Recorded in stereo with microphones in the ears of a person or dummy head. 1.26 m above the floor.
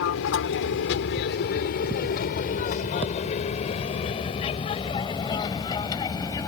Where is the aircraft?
70° left (ahead or behind); by 6.5 s 15° left (ahead or behind).